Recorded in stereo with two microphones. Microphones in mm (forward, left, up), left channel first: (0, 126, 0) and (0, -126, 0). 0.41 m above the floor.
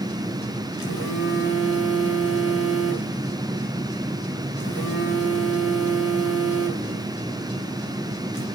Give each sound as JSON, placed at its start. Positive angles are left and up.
{"t": 0.8, "sound": "a phone buzzing", "side_deg": 45, "distance_m": 4.0}